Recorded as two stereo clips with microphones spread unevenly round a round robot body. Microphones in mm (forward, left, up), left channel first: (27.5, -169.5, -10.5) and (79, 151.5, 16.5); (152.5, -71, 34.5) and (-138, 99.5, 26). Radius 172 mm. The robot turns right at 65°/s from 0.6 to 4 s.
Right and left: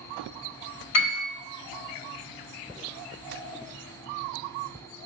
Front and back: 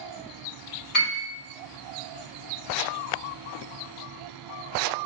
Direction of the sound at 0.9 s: 70° right.